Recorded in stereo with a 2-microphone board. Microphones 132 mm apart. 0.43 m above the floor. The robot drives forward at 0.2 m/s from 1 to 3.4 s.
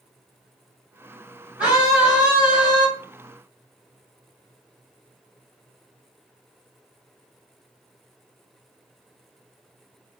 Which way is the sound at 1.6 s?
10° right (ahead or behind).